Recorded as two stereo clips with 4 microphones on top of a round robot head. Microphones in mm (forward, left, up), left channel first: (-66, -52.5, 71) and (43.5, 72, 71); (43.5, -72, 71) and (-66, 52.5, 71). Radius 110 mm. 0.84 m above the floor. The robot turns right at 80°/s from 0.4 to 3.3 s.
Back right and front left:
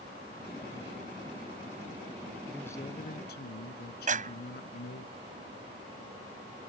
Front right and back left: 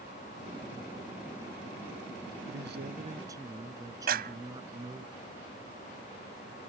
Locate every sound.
2.5 s a man speaking: 135° left; by 5.1 s 160° right
4.1 s a clap: 95° left